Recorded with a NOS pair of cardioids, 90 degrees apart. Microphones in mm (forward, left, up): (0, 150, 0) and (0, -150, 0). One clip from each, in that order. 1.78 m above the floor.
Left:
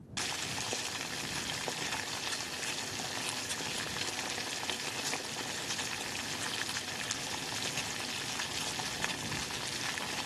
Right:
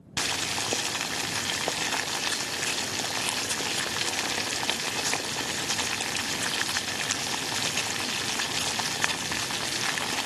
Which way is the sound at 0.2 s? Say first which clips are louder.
Right 8 dB; 40° right.